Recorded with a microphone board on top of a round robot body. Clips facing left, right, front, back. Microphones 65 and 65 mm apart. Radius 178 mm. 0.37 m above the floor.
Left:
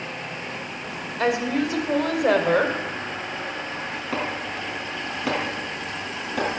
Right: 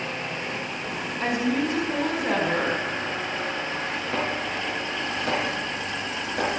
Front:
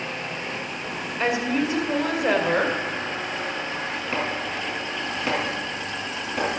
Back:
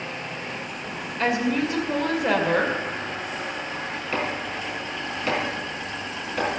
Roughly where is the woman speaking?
Left.